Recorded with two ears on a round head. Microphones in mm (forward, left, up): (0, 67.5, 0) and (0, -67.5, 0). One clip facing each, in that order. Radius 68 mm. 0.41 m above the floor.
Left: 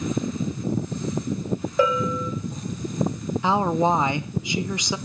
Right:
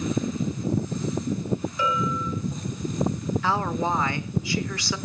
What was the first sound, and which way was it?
A bell, 45° left (ahead or behind).